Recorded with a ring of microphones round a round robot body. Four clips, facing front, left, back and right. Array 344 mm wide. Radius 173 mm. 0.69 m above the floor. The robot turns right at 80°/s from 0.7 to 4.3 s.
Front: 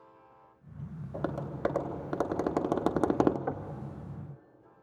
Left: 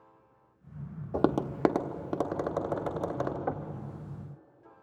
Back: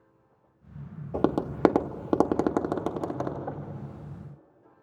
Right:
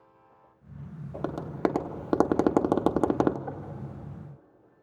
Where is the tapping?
135° left, 0.5 m; by 3.4 s 45° right, 0.5 m.